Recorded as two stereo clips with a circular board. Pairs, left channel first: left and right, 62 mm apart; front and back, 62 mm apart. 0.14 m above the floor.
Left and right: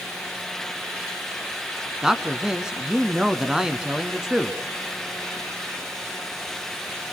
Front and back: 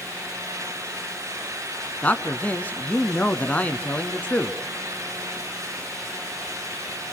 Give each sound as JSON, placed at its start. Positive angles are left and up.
{"t": 2.0, "sound": "a man speaking", "azimuth_deg": -25, "distance_m": 1.2}